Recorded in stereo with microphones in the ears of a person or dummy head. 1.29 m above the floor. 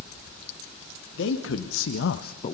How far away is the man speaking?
About 2.0 m.